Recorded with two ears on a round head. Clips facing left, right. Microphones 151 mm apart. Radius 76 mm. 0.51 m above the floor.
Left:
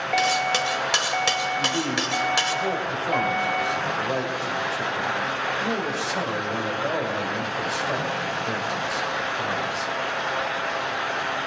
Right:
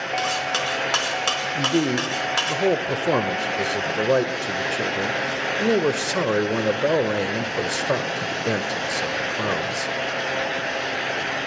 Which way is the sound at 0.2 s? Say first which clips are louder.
Left 3 dB; 15° left (ahead or behind).